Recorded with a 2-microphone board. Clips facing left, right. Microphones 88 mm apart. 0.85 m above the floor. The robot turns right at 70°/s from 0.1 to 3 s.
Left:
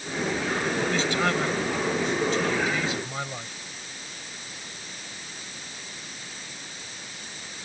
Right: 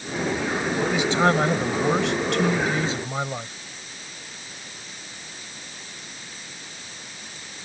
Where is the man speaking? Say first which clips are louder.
Right 7 dB; straight behind; by 3.5 s 25° right.